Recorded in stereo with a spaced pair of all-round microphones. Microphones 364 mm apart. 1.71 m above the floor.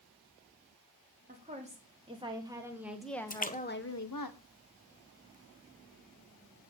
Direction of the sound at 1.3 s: 20° right (ahead or behind).